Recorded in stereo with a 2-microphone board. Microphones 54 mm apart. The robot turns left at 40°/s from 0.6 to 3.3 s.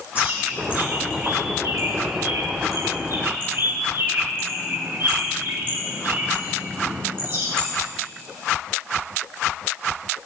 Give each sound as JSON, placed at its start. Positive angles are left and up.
{"t": 0.1, "sound": "a bird", "side_deg": -30, "distance_m": 3.5}